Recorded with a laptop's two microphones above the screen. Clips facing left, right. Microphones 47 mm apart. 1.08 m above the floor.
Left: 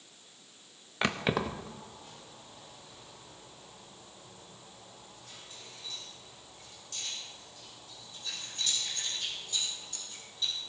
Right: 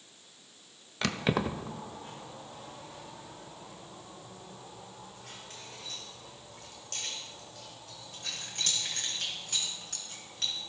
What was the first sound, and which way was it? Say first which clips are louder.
Keys jangling: even; 25° left (ahead or behind).